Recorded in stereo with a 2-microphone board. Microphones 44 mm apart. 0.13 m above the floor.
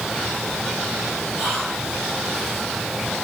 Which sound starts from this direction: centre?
Whispering, at 1.4 s.